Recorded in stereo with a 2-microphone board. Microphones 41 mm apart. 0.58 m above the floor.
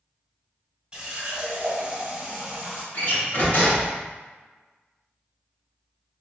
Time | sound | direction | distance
0.9 | a running tap | 30° right (ahead or behind) | 1.3 m
2.9 | a door slam | 45° left (ahead or behind) | 1.4 m